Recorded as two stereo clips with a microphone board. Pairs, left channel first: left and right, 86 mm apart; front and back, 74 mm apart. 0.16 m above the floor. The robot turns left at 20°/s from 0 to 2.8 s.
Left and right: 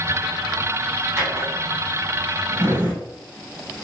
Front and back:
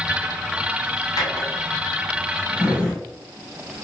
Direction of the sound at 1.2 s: 40° right.